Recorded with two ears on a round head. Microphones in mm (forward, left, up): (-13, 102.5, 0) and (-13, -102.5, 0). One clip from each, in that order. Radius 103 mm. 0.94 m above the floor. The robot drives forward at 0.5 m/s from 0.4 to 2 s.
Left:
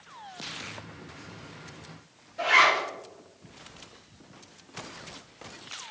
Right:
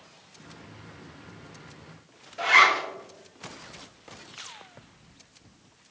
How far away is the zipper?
About 1.1 m.